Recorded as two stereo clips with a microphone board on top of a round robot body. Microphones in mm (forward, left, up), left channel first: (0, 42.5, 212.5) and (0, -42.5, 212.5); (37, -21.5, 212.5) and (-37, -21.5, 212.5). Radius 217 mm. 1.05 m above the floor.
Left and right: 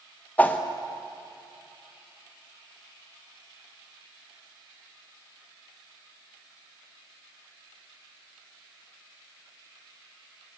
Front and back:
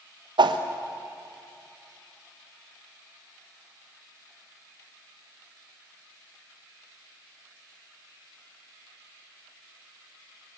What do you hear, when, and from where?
0.4 s a whoosh: 165° left, 1.1 m